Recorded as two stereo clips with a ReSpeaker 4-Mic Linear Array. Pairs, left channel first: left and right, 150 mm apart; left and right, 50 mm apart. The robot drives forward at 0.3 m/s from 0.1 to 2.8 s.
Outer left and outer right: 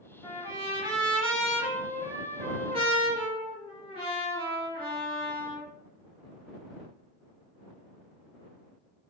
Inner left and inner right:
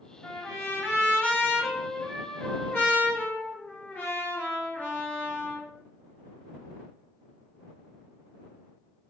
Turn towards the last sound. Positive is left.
turn(degrees=30)  # may be behind; listen again after turning